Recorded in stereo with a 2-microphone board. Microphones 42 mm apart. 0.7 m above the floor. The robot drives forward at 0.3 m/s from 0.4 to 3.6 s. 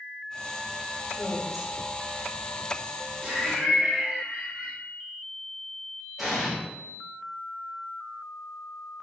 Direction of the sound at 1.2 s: 5° right (ahead or behind).